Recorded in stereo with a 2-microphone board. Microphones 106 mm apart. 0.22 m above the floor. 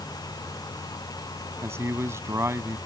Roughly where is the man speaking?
Right.